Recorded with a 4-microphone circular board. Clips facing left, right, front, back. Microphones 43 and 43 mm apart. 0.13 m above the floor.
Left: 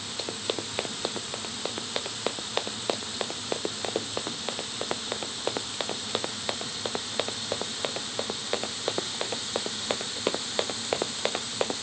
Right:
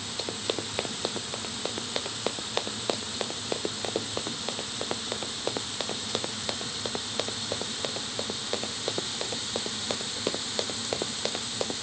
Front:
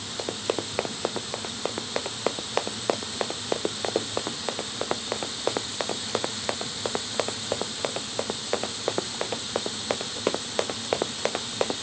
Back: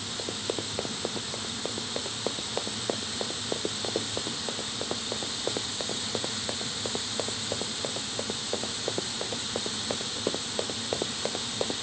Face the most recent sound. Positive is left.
turn(degrees=30)